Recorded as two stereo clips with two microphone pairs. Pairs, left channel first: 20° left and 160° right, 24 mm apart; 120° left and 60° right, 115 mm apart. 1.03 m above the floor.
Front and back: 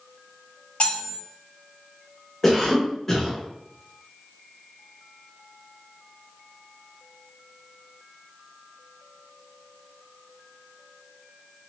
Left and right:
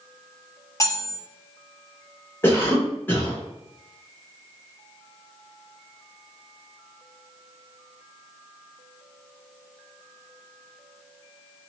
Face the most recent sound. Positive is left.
turn(degrees=85)